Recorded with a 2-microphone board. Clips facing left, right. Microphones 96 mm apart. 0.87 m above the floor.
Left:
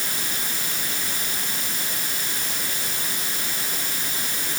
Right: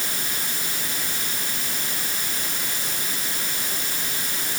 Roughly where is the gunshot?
No gunshot in this recording.